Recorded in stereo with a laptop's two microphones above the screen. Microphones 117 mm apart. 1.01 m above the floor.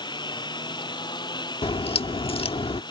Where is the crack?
55° left (ahead or behind).